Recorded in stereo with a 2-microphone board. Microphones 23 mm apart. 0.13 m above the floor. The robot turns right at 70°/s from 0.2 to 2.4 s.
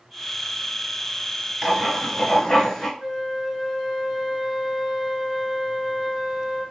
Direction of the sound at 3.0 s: 20° right (ahead or behind).